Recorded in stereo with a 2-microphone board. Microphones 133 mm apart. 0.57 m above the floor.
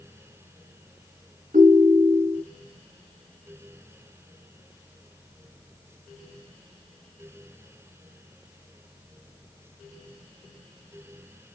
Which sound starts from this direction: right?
A ringtone, at 1.5 s.